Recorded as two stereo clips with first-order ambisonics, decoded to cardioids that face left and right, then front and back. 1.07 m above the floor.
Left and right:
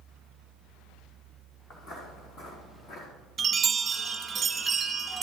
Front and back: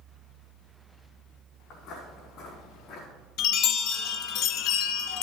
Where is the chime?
20° right, 1.1 m.